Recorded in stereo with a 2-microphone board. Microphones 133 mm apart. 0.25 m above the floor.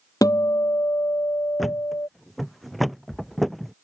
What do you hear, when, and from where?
0.2 s a guitar: 25° left (ahead or behind)
1.6 s a thud: centre (ahead or behind)